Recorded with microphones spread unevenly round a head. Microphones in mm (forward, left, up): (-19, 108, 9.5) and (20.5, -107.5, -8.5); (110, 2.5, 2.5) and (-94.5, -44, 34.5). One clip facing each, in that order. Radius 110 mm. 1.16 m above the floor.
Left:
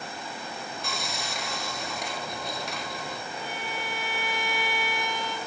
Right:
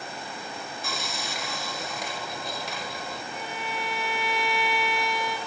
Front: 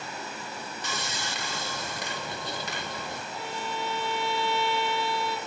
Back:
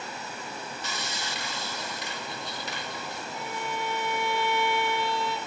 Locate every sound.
0.8 s sawing: 15° left, 1.0 m
3.3 s a violin: 100° right, 2.5 m